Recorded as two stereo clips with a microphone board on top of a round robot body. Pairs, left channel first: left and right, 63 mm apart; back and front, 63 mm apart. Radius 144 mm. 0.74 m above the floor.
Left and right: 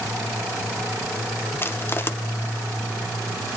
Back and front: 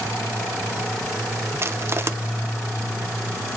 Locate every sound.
1.6 s crushing: 40° left, 1.1 m